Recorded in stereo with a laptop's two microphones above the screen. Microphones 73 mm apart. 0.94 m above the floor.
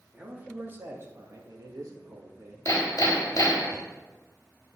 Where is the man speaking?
20° right (ahead or behind), 2 m; by 2.5 s 60° right (ahead or behind), 1.6 m.